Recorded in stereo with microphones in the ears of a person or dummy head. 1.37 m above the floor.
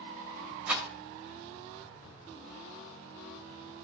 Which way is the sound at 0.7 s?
5° right (ahead or behind).